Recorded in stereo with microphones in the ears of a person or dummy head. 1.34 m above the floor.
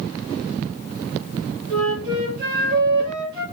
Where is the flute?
50° right (ahead or behind), 1.0 m.